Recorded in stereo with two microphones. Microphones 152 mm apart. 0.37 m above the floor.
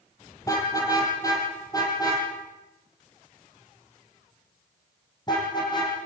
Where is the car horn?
20° left (ahead or behind), 6.5 m; by 5.9 s 30° left (ahead or behind), 9.5 m.